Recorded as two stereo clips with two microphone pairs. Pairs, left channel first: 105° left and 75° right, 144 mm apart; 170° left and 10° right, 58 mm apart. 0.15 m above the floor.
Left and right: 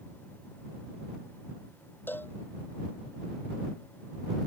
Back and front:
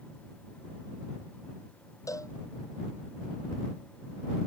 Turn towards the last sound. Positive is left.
turn(degrees=180)